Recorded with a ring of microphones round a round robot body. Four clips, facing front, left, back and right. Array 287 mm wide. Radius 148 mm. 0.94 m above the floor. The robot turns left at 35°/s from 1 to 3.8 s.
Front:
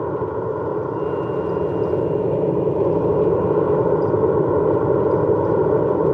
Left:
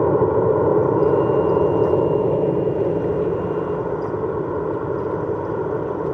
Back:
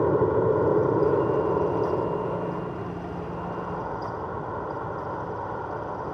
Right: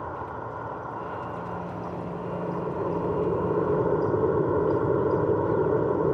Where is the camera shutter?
I don't hear a camera shutter.